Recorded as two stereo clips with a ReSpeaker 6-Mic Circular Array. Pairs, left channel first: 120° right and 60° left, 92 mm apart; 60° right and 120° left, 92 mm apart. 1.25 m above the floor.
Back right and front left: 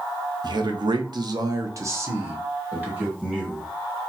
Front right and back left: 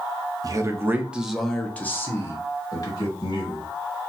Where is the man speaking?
80° left, 0.8 m; by 3.7 s 20° right, 1.7 m.